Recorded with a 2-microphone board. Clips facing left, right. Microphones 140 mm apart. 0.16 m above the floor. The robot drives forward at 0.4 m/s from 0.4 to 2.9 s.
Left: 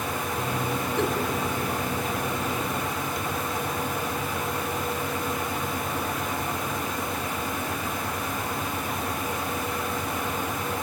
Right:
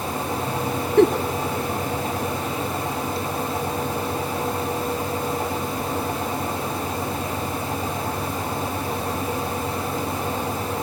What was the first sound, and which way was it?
A giggle, 65° right (ahead or behind).